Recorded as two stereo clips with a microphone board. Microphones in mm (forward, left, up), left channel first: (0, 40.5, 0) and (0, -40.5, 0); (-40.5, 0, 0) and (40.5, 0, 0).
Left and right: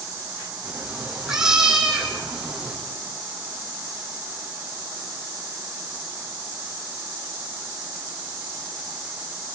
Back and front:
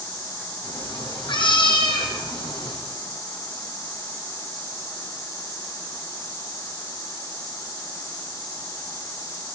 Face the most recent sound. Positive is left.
turn(degrees=-175)